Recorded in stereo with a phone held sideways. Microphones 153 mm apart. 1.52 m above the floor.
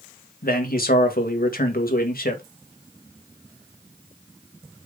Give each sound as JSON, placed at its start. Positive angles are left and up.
{"t": 0.4, "sound": "a man speaking", "side_deg": 75, "distance_m": 2.0}